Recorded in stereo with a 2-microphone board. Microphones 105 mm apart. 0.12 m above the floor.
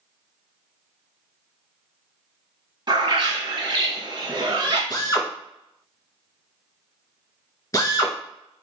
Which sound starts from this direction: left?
A drill, at 4.9 s.